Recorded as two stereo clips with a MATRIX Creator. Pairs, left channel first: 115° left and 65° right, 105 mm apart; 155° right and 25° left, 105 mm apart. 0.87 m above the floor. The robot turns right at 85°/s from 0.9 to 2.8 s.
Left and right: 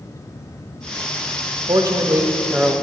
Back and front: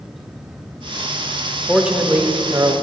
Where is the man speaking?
70° right, 0.8 m; by 2.7 s 20° left, 0.8 m.